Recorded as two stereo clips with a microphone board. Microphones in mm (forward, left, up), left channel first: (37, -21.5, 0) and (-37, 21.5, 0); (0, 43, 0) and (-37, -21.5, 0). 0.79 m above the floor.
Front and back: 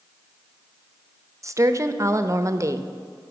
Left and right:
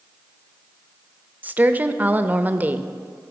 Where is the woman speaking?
175° right, 0.5 m.